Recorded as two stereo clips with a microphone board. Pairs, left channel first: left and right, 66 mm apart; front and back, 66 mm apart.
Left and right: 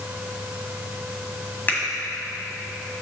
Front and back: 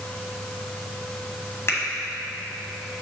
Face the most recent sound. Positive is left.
turn(degrees=35)